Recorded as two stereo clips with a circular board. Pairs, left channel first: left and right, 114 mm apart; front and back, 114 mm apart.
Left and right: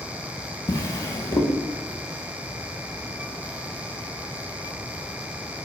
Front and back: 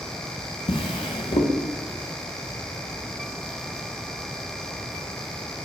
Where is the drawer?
35° left, 0.7 m.